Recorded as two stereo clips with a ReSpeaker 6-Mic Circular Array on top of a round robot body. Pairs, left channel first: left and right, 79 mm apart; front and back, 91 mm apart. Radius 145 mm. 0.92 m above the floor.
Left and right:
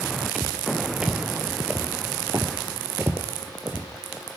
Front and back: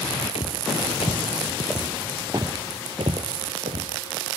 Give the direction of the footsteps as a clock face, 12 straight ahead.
12 o'clock.